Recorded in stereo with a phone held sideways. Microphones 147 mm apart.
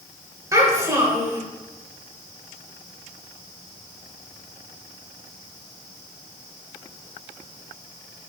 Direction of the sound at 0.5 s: 20° right (ahead or behind).